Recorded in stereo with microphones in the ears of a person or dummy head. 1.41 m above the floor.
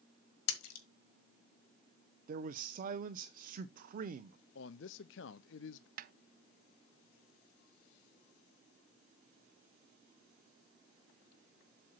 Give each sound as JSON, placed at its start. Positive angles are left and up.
{"t": 0.5, "sound": "a splash", "side_deg": 70, "distance_m": 1.6}
{"t": 2.3, "sound": "a man speaking", "side_deg": -40, "distance_m": 0.6}
{"t": 4.5, "sound": "a man speaking", "side_deg": 60, "distance_m": 0.5}
{"t": 6.0, "sound": "a snare drum", "side_deg": -55, "distance_m": 0.5}